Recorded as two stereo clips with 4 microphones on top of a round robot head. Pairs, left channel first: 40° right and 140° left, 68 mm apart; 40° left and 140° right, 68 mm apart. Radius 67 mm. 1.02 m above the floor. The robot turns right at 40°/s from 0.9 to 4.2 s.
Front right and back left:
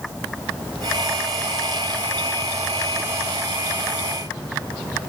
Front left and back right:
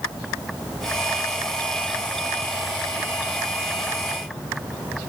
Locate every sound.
Only background noise.